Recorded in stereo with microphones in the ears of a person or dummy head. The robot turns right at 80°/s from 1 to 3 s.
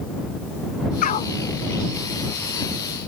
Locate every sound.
1.0 s a dog barking: 50° left (ahead or behind); by 1.4 s 25° left (ahead or behind)